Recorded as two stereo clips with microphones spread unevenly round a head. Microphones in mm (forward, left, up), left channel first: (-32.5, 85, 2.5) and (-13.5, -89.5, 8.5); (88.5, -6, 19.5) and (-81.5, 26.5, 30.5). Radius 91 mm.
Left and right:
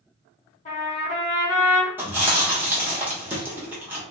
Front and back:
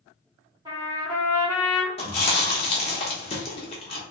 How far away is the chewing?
About 0.8 m.